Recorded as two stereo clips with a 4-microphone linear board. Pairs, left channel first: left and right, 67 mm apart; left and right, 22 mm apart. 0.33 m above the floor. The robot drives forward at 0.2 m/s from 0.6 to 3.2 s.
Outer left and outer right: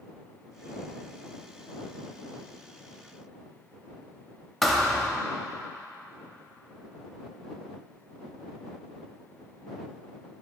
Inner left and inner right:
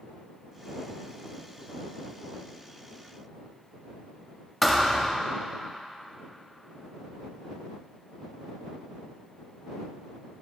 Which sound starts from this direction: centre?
A thud, at 4.6 s.